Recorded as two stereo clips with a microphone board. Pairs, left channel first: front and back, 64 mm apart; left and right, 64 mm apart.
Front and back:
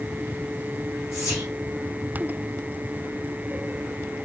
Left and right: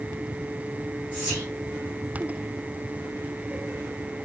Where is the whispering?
25° right, 1.7 m.